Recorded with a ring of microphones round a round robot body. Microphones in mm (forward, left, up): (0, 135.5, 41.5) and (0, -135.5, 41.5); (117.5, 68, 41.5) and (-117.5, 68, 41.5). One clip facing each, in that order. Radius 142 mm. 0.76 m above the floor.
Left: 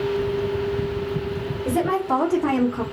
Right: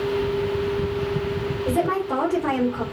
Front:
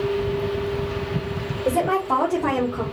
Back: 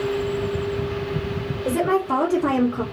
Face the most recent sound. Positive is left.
turn(degrees=110)